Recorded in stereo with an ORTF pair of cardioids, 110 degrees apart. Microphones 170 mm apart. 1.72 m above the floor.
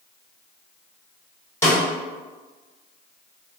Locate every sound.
1.6 s a snare drum: 15° left, 1.5 m